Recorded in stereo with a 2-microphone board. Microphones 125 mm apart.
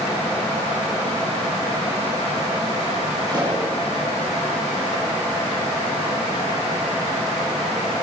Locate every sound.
3.3 s a pop: 35° right (ahead or behind), 9.5 m